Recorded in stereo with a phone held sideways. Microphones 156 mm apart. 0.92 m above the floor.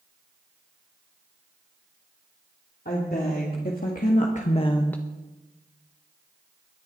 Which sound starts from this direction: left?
A woman speaking, at 2.9 s.